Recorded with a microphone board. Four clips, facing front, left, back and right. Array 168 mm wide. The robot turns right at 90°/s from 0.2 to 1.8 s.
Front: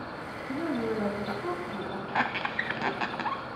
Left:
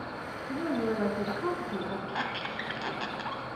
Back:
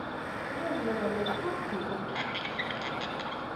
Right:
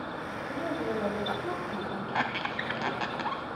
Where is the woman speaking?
20° left, 4 m; by 2.0 s 140° left, 4 m.